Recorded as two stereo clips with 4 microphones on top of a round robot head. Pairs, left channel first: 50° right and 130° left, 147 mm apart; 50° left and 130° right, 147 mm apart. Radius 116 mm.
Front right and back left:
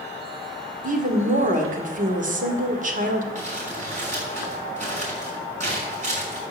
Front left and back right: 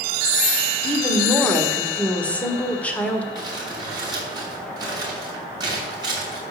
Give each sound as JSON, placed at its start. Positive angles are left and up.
{"t": 0.8, "sound": "a woman speaking", "azimuth_deg": 130, "distance_m": 1.8}
{"t": 3.4, "sound": "crumpling", "azimuth_deg": 165, "distance_m": 6.0}